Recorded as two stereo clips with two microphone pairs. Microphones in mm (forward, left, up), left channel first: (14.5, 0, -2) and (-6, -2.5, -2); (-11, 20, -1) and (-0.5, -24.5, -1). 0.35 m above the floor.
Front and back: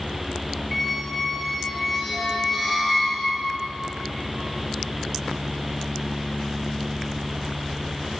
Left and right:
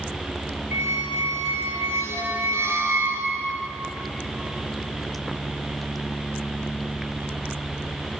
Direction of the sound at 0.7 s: 80° right.